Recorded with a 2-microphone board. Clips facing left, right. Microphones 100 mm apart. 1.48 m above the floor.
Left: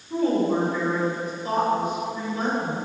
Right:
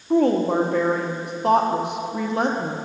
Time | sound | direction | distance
0.1 | a woman speaking | 70° right (ahead or behind) | 1.0 m